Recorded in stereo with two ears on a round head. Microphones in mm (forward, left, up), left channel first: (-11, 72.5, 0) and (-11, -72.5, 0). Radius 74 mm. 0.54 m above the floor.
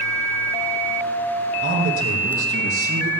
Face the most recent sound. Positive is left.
turn(degrees=-70)  # may be behind; listen again after turning